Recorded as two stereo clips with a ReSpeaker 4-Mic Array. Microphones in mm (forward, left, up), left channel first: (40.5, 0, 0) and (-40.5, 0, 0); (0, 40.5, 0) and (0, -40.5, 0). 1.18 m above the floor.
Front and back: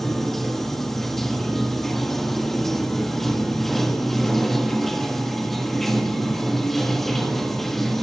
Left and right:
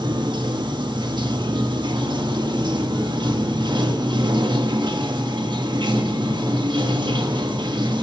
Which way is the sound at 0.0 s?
85° right.